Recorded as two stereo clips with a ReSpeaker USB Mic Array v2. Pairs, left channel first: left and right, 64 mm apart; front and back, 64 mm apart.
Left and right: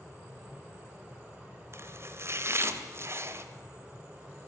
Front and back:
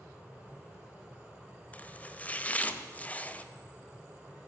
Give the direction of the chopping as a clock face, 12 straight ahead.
2 o'clock.